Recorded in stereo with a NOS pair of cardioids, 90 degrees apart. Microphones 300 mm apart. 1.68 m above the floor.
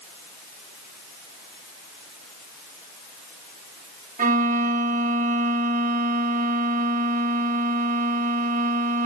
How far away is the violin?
About 1.3 m.